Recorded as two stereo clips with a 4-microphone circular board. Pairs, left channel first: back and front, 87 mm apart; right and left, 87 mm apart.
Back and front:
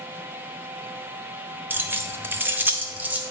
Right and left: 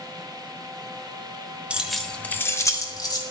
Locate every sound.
1.7 s keys jangling: 30° left, 0.5 m; by 3.2 s 70° right, 0.9 m